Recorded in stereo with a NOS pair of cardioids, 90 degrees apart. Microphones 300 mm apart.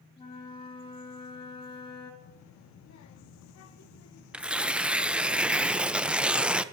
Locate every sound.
0.2 s a flute: 20° left, 4.5 m
2.2 s a child speaking: 70° left, 1.4 m
4.3 s tearing paper: 5° right, 0.6 m